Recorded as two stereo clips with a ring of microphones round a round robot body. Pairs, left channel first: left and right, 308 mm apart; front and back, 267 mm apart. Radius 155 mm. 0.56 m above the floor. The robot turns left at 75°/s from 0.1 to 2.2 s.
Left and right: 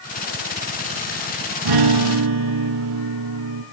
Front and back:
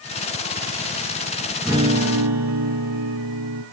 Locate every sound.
1.6 s a guitar: 95° right, 1.9 m; by 3.6 s 135° right, 1.9 m